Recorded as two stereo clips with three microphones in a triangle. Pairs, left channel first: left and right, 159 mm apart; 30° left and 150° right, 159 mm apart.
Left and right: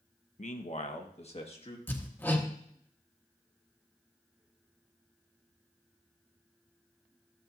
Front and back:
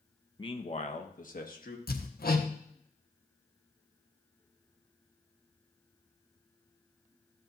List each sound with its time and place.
0.4 s a man speaking: 75° left, 0.9 m; by 1.8 s 40° left, 1.6 m
1.9 s hammering: 15° left, 1.2 m